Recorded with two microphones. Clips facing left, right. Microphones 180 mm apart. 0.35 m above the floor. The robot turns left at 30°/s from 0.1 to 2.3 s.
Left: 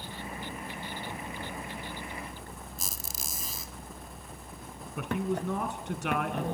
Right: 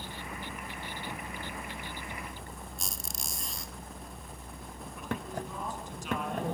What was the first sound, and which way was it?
A squeak, centre (ahead or behind).